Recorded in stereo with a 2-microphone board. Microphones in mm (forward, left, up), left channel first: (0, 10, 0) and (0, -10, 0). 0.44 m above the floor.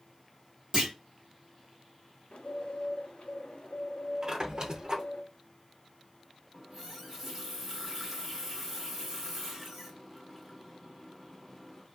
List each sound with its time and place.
0.7 s a clunk: 40° right (ahead or behind), 1.4 m
2.3 s a bird: 85° left, 0.7 m
4.2 s a squeak: 40° right (ahead or behind), 0.5 m
6.5 s a running tap: 15° right (ahead or behind), 0.8 m